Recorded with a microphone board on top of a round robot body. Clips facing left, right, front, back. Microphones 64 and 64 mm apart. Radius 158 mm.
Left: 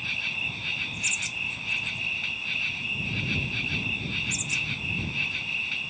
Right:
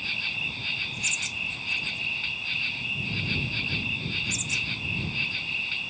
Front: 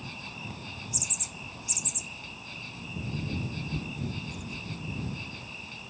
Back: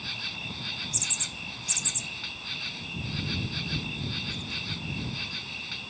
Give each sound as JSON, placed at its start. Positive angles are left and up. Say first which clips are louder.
{"t": 0.0, "sound": "an insect", "louder": "even, back 3 dB", "azimuth_deg": 175}